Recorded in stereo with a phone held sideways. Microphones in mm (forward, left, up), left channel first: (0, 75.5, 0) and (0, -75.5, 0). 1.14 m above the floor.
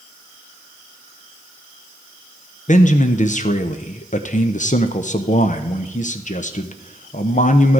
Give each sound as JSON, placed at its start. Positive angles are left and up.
{"t": 2.7, "sound": "a man speaking", "side_deg": 55, "distance_m": 0.7}